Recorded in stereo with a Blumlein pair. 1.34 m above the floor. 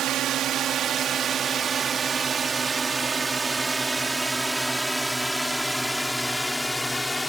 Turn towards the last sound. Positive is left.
turn(degrees=5)